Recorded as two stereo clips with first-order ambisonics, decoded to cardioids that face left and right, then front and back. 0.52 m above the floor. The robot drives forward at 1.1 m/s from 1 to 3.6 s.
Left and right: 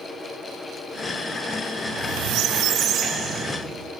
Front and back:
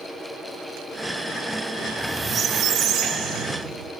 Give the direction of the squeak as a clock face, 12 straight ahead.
2 o'clock.